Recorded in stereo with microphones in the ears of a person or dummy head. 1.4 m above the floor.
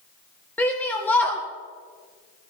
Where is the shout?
10° left (ahead or behind), 1.5 m.